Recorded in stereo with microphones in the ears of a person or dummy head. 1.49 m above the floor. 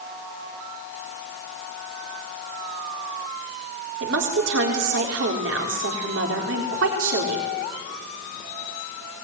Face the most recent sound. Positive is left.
turn(degrees=-65)  # may be behind; listen again after turning